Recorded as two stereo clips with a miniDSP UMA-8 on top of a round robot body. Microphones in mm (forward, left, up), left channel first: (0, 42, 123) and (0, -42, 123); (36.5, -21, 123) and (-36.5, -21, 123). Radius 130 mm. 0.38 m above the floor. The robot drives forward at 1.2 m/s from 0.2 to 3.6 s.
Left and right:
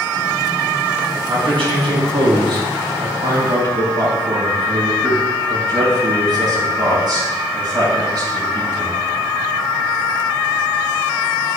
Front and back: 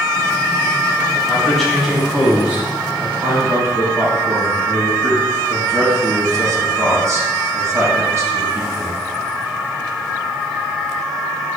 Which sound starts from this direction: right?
A man speaking, at 1.3 s.